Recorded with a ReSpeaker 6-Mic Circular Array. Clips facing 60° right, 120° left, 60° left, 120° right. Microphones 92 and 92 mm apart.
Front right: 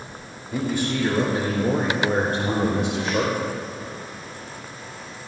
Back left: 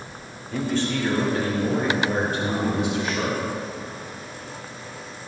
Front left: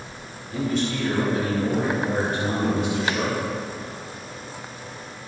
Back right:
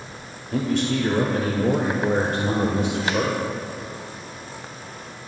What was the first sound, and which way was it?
A man speaking, 140° right.